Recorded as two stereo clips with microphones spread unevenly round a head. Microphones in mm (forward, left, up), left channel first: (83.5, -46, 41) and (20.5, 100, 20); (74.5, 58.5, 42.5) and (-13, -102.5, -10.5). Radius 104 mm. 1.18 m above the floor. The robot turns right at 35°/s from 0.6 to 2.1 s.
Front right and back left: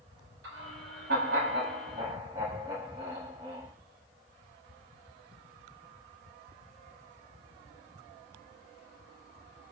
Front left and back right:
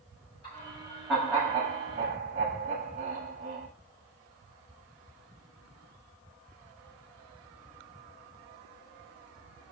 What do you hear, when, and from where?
0.4 s laughter: 130° left, 7.5 m; by 3.7 s straight behind, 7.5 m